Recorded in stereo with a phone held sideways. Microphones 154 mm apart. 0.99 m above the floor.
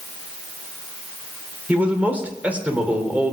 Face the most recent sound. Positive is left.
turn(degrees=-10)  # may be behind; listen again after turning